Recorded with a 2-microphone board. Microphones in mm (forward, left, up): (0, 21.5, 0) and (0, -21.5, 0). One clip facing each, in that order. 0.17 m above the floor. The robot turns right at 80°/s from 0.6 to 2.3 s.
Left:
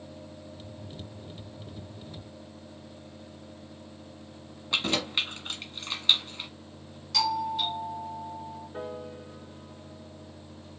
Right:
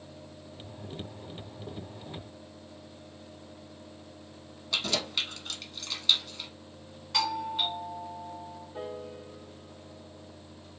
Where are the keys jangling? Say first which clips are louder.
Left 3 dB; 30° left (ahead or behind), 0.8 m.